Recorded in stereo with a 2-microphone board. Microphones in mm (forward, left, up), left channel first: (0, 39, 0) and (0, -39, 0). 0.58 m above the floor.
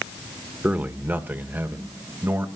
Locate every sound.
0.6 s a man speaking: 25° right (ahead or behind), 1.6 m; by 2.5 s 30° right (ahead or behind), 3 m